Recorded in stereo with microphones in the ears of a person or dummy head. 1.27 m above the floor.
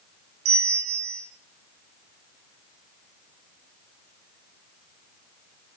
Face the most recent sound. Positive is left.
turn(degrees=-65)  # may be behind; listen again after turning